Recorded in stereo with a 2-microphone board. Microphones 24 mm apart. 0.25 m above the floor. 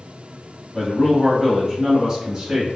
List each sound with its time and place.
0.7 s a man speaking: 30° left (ahead or behind), 1.6 m; by 2.7 s 30° right (ahead or behind), 1.5 m